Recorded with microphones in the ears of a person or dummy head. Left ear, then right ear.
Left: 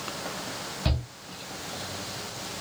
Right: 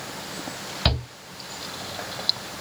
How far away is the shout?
About 1.0 m.